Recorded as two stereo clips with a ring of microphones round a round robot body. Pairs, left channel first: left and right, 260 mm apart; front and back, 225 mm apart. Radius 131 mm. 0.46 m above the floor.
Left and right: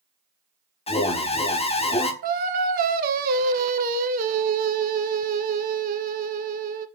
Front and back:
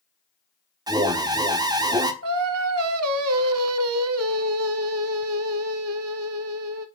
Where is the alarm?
125° left, 1.1 m.